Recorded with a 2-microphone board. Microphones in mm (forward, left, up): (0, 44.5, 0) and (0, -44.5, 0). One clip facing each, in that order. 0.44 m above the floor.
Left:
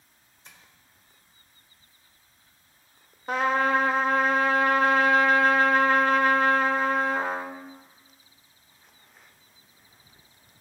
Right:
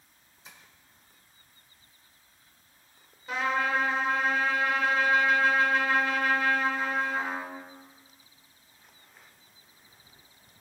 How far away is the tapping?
About 1.6 m.